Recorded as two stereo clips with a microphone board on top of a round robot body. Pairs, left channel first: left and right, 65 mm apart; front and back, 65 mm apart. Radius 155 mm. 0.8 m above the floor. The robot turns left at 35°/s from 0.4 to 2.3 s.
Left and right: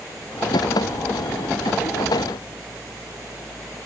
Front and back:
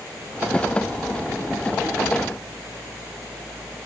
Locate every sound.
Only background noise.